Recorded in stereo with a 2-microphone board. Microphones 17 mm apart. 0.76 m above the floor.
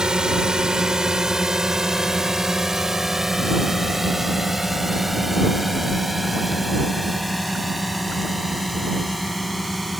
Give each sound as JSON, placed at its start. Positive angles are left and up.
{"t": 0.0, "sound": "a drone", "side_deg": -50}